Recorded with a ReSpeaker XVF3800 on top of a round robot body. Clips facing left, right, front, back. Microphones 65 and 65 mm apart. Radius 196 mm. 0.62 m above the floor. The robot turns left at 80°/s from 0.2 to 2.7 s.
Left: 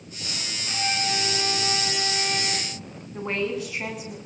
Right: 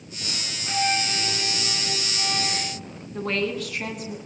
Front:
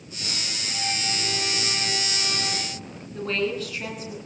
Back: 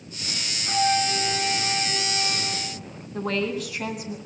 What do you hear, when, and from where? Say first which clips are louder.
0.7 s a flute: right 3 dB, back 10 dB; 150° right, 3.5 m; by 2.7 s 50° left, 3.5 m
3.1 s a woman speaking: right 1 dB, even; 165° left, 9 m